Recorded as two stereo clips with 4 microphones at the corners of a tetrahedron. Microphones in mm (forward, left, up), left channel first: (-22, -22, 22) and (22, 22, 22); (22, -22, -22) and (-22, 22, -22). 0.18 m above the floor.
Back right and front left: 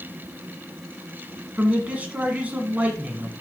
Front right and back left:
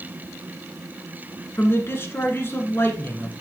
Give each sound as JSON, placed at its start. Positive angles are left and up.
{"t": 1.6, "sound": "a man speaking", "azimuth_deg": -15, "distance_m": 1.9}